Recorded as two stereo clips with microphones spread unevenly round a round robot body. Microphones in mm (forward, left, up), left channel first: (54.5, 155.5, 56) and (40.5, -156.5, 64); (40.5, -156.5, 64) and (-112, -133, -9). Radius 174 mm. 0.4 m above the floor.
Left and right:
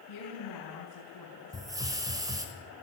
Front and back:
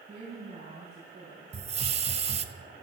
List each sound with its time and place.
0.1 s a woman speaking: 95° left, 4.5 m
1.5 s a hiss: 170° right, 1.4 m